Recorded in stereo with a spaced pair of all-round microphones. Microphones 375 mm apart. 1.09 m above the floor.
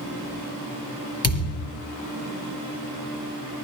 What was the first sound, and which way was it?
A thud, 40° left (ahead or behind).